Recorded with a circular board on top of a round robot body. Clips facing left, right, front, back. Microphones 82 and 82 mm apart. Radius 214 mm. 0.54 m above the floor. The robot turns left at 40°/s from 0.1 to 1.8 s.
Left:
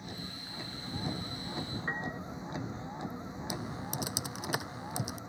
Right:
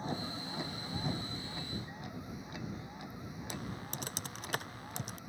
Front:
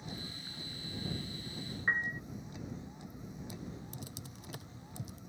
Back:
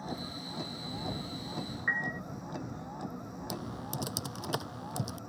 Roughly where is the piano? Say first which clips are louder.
Left 8 dB, even; left.